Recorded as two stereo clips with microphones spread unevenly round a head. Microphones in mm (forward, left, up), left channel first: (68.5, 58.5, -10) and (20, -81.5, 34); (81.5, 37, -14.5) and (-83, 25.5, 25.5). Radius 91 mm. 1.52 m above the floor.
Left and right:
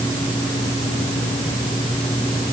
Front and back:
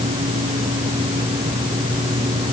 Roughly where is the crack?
I don't hear a crack.